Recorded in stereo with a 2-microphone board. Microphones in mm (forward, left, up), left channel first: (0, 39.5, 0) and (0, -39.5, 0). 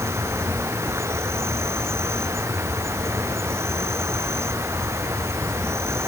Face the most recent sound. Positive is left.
turn(degrees=-35)  # may be behind; listen again after turning